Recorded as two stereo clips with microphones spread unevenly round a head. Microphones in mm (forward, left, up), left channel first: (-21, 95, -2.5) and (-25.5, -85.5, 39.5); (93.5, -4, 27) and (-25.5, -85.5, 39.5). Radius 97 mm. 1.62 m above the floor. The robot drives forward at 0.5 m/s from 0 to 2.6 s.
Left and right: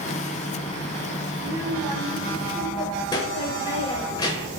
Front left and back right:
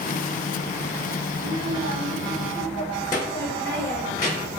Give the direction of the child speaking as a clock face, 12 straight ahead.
12 o'clock.